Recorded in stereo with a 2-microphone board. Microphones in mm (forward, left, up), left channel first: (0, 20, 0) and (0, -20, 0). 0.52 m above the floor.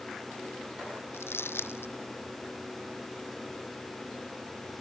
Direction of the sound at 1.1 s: 90° left.